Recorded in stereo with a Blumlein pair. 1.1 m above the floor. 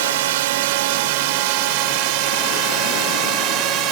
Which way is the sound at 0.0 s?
55° right.